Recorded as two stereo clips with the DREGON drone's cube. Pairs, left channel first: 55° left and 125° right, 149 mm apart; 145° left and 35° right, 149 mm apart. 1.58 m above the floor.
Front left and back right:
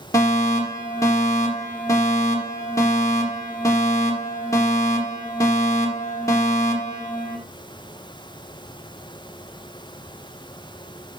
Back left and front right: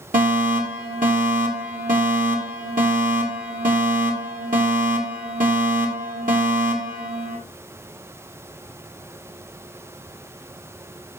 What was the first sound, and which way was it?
A fire alarm, 15° right.